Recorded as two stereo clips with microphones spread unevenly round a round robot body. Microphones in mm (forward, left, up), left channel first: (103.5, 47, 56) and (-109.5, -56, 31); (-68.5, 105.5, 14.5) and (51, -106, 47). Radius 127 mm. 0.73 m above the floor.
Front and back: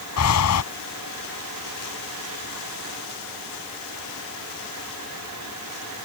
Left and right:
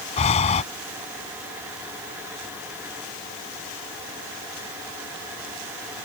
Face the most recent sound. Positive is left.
turn(degrees=55)